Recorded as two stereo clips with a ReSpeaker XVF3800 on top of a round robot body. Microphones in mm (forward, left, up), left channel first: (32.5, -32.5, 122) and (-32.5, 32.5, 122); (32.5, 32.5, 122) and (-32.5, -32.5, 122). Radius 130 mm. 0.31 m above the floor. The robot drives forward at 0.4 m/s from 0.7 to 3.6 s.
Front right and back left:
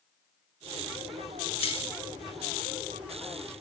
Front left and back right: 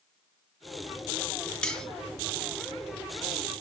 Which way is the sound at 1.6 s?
35° right.